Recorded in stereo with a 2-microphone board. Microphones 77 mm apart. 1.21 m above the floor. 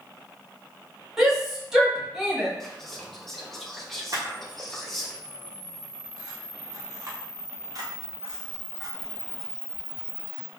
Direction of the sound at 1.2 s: 5° right (ahead or behind).